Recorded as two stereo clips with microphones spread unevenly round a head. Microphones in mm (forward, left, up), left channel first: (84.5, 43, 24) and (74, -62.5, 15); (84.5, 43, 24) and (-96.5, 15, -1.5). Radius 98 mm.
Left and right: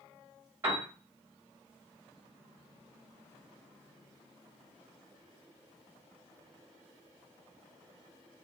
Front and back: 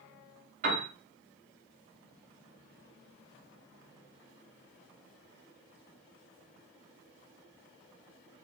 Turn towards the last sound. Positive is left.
turn(degrees=-165)